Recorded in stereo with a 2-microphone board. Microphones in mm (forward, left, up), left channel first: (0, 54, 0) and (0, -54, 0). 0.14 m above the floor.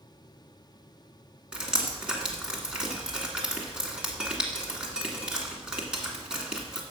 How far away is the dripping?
About 1.7 m.